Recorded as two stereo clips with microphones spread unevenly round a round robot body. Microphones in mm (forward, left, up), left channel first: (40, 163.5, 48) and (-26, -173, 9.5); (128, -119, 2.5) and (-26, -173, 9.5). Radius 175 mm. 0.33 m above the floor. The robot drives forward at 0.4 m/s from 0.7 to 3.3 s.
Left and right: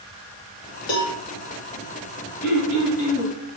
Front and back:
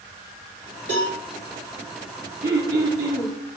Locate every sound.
0.9 s a cowbell: 75° left, 2 m; by 1.2 s 80° left, 2 m
2.4 s throat clearing: 130° left, 2.5 m; by 3.3 s 135° left, 2.5 m